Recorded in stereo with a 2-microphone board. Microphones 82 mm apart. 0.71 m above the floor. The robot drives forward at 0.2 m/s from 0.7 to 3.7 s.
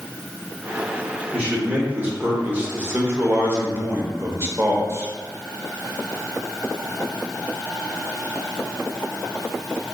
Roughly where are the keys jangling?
No keys jangling in this recording.